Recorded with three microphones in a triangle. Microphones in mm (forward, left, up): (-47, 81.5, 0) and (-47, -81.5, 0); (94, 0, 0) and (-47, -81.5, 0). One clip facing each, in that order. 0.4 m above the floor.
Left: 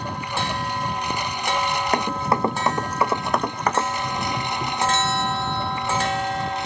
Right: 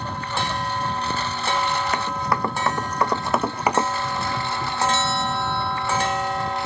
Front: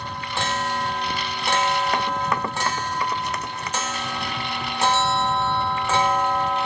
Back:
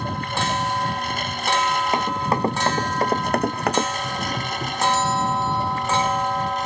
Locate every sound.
0.0 s a lawn mower: 165° left; by 6.7 s 160° left
1.9 s running footsteps: 145° left; by 3.9 s 165° right
4.0 s a doorbell: 160° left